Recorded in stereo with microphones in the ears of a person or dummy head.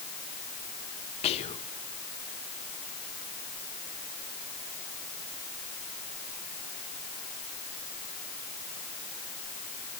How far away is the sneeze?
I don't hear a sneeze.